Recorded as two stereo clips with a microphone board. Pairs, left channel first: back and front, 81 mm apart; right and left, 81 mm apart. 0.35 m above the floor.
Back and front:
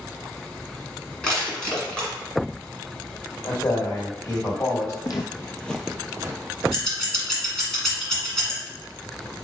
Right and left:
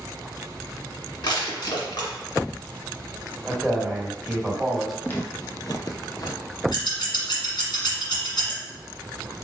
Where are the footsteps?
155° right, 0.8 m; by 6.4 s 45° right, 0.8 m.